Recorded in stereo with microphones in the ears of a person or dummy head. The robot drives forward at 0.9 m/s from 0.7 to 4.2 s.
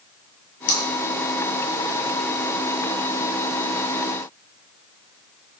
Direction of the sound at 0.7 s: 60° left (ahead or behind).